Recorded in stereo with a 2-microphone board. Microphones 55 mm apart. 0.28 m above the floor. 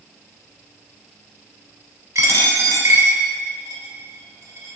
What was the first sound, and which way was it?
A dropped coin, 70° right (ahead or behind).